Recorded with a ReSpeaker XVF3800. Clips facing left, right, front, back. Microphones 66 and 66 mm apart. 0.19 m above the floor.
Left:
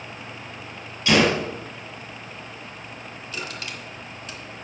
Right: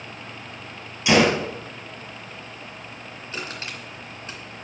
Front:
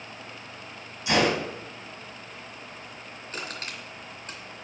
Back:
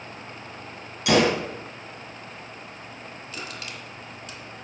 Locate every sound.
1.1 s a gunshot: 165° right, 2 m
3.3 s crushing: 40° right, 2.5 m